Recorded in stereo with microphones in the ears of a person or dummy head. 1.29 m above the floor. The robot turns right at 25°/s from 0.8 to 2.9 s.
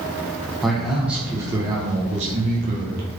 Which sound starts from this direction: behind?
A man speaking, at 0.6 s.